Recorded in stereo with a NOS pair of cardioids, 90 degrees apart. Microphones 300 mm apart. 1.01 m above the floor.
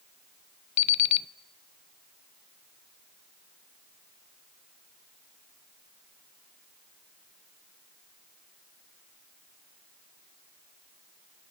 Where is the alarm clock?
65° left, 0.7 m.